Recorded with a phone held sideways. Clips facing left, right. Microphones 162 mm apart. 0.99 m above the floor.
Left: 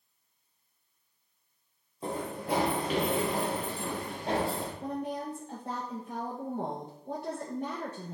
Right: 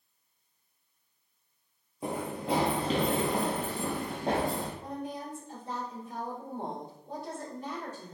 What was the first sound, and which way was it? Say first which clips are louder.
Running footsteps: right 1 dB; 10° right (ahead or behind).